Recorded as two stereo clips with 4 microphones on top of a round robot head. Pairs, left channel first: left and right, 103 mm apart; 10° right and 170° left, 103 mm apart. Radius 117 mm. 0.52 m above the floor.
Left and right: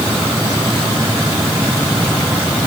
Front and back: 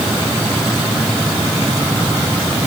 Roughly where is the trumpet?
No trumpet in this recording.